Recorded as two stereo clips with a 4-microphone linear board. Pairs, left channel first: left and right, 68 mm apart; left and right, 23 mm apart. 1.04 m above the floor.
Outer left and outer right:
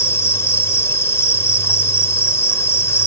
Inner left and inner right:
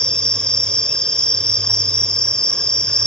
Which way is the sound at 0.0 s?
40° left (ahead or behind).